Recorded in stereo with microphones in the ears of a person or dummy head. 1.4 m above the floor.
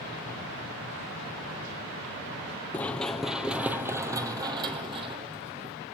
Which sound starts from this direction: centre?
Running footsteps, at 2.7 s.